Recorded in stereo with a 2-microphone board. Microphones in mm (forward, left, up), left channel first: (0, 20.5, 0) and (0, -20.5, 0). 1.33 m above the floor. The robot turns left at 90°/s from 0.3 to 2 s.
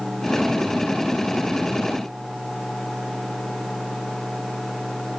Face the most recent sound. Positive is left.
No sound to turn to.